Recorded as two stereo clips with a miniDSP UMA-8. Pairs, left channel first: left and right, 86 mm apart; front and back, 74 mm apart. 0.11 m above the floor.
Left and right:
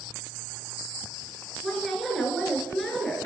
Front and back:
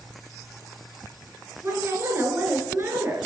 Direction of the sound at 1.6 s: 175° left.